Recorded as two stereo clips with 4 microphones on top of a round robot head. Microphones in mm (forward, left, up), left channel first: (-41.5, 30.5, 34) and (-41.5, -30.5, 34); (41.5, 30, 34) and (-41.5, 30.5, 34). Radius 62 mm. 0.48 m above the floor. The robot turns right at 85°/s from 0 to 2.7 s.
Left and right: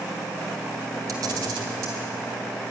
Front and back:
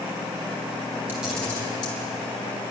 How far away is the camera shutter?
About 3.5 m.